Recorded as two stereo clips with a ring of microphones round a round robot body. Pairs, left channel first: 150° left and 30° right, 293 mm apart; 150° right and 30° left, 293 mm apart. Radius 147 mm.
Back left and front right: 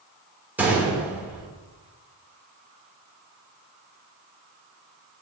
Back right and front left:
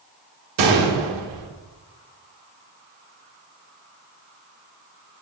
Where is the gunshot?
55° left, 1.1 m.